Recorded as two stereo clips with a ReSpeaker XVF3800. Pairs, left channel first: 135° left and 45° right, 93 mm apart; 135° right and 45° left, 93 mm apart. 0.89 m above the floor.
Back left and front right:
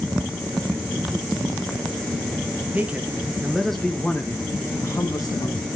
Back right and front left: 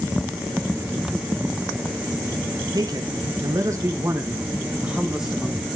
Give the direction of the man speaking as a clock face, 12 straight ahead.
11 o'clock.